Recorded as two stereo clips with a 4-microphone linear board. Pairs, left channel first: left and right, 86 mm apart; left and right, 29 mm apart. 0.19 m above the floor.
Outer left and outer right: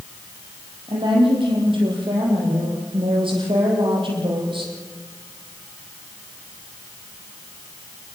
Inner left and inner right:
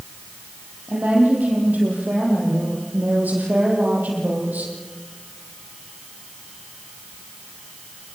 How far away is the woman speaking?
About 8.5 m.